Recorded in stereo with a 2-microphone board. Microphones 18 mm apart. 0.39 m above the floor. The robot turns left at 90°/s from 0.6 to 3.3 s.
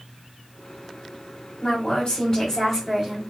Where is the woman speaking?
110° left, 2 m; by 3.2 s 35° right, 2 m.